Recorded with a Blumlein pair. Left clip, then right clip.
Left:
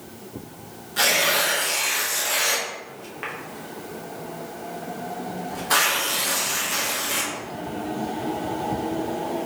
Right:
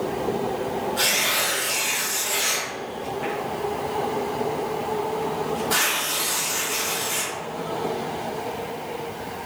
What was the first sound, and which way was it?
Tearing paper, 20° left.